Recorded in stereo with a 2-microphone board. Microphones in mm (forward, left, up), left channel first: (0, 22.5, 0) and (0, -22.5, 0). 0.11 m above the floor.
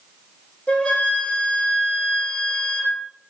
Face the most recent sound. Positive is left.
turn(degrees=25)  # may be behind; listen again after turning